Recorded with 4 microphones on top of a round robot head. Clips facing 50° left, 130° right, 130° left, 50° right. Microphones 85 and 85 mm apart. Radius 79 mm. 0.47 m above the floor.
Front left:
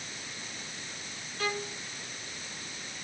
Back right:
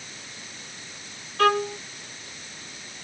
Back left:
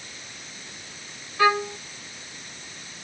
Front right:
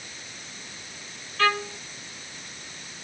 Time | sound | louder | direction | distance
1.4 | a violin | back right 14 dB, back left 4 dB | 155° right | ?